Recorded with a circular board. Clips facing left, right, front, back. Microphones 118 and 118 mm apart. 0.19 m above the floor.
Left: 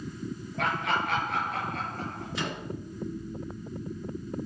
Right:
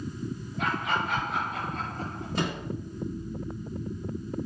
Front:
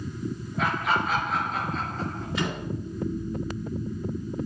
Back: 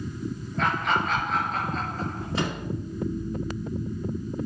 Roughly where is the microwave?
Behind right.